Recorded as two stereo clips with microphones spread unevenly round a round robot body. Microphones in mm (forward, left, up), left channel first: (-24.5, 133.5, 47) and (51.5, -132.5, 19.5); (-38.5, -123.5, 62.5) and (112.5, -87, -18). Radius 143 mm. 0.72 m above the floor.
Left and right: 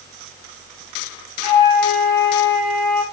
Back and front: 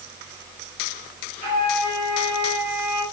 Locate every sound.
1.4 s a flute: 120° left, 7.5 m